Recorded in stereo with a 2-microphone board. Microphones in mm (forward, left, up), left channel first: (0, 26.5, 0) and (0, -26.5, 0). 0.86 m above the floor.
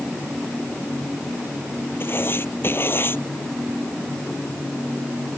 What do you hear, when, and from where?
2.0 s writing: 45° left (ahead or behind)